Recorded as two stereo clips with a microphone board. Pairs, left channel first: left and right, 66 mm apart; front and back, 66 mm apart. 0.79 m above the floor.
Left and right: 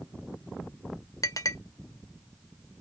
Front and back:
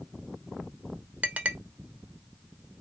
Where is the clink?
115° left, 0.7 m.